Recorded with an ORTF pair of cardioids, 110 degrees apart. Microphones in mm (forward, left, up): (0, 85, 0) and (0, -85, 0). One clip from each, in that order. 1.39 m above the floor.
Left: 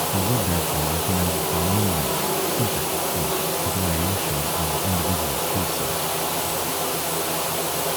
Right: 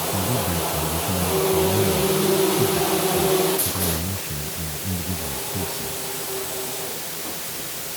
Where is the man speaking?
10° left.